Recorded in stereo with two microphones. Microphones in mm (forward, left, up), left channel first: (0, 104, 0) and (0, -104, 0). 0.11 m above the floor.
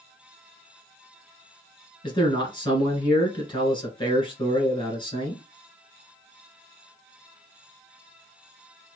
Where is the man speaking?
25° left (ahead or behind), 1.6 m.